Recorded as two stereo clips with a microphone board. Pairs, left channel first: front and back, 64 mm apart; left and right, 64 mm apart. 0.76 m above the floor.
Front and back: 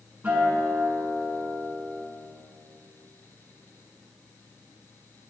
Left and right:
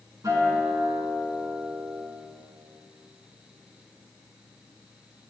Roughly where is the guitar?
Behind right.